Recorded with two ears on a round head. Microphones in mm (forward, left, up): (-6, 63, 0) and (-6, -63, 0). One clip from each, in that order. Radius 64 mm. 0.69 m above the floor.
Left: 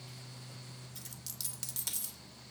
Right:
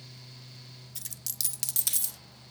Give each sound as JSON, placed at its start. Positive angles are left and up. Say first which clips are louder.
{"t": 0.9, "sound": "a dropped coin", "louder": "right 9 dB", "side_deg": -45, "distance_m": 0.5}